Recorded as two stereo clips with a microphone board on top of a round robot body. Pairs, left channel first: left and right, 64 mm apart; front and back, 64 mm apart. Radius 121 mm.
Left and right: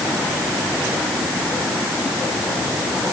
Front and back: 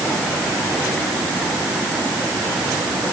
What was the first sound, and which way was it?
Only background noise.